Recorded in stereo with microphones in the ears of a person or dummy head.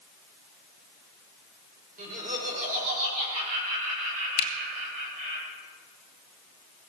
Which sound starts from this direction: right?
Laughter, at 2.0 s.